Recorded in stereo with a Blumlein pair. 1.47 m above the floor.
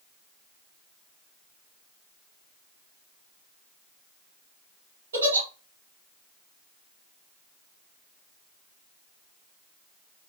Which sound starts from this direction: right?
A giggle, at 5.1 s.